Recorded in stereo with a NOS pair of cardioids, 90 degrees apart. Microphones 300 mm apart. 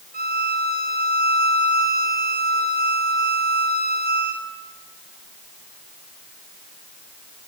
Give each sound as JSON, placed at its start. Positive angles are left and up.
{"t": 0.1, "sound": "a violin", "azimuth_deg": -30, "distance_m": 7.0}